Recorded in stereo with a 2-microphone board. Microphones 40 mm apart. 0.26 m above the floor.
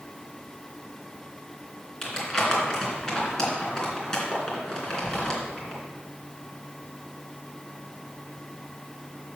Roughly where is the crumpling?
Centre.